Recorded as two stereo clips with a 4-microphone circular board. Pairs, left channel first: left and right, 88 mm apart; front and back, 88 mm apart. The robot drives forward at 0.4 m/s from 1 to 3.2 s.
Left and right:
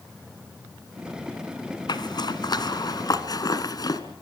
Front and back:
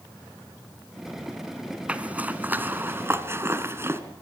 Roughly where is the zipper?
Left.